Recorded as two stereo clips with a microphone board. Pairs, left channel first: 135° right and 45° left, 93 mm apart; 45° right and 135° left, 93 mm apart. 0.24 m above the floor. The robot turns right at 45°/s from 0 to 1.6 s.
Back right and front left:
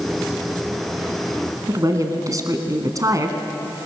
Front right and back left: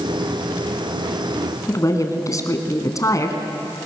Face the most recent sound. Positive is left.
turn(degrees=0)